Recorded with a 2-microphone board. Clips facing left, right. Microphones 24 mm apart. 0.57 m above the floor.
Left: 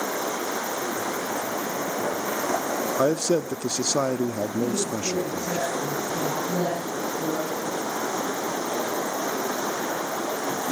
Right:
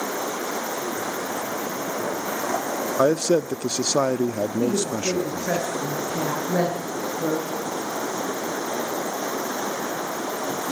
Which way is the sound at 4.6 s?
45° right (ahead or behind).